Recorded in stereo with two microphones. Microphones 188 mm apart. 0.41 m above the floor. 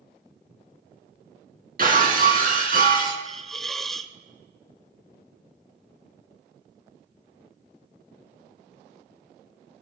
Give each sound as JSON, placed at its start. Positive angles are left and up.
{"t": 1.8, "sound": "breaking glass", "side_deg": -50, "distance_m": 3.0}
{"t": 3.2, "sound": "a hiss", "side_deg": 0, "distance_m": 0.7}